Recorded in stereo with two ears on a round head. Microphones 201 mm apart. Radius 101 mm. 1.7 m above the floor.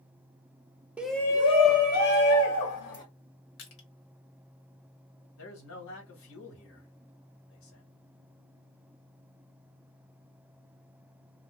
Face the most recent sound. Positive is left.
turn(degrees=65)  # may be behind; listen again after turning